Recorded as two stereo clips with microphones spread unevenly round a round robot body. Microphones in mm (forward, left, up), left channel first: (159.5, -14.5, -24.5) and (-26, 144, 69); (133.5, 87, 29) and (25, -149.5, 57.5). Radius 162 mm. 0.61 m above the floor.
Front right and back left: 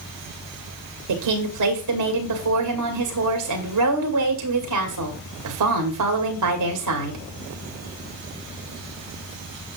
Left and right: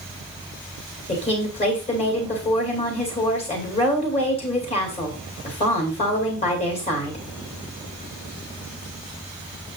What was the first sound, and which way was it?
A woman speaking, 130° left.